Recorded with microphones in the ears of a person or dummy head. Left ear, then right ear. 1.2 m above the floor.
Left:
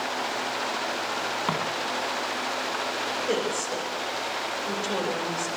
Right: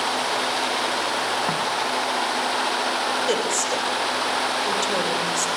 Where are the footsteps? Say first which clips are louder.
Right 3 dB; 15° left (ahead or behind), 6 m.